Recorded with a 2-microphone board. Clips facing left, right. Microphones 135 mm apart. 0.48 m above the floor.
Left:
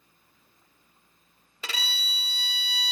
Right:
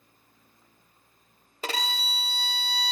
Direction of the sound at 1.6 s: 45° right (ahead or behind).